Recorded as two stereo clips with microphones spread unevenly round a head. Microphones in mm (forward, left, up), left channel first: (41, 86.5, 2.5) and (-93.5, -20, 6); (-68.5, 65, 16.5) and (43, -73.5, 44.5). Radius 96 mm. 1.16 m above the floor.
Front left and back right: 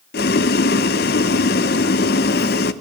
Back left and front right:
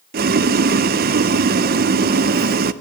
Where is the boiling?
5° right, 0.6 m.